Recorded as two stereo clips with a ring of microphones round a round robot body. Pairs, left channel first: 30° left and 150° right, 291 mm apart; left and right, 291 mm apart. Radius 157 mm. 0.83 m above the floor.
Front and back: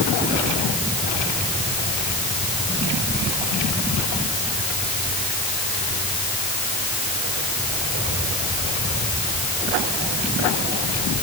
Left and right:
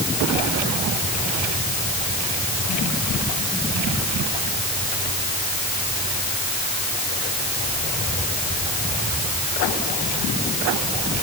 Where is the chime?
No chime in this recording.